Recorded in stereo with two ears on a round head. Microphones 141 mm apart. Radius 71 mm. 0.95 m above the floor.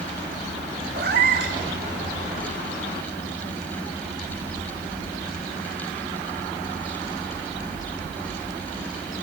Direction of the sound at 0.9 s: 70° right (ahead or behind).